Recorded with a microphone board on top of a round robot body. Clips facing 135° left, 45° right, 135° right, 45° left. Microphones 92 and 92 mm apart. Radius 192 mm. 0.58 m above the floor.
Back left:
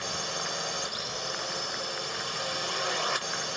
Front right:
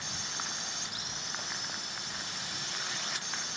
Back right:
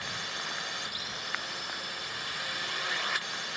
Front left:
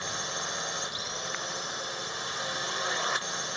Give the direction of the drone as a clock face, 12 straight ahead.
8 o'clock.